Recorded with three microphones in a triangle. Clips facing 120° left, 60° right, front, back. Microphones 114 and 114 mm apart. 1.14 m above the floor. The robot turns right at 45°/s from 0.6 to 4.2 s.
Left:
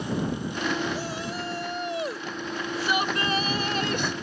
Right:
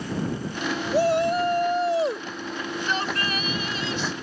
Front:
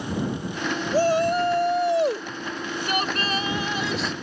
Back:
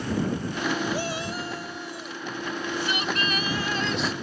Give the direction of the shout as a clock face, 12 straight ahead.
2 o'clock.